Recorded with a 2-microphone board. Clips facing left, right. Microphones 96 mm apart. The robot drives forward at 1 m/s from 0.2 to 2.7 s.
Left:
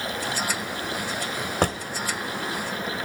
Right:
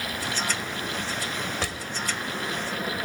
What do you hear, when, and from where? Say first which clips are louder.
1.6 s a drawer: left 8 dB; 45° left (ahead or behind), 0.8 m; by 1.8 s 40° left (ahead or behind), 0.9 m